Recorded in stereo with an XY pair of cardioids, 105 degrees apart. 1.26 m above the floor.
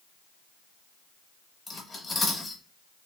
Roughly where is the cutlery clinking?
Ahead.